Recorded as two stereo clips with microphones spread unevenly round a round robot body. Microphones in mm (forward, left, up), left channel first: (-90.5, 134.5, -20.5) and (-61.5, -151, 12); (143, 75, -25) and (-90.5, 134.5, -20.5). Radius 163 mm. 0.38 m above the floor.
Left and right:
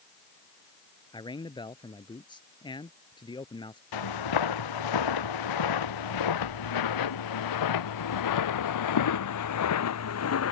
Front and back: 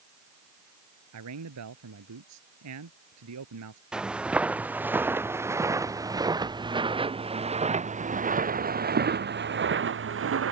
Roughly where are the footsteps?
Left.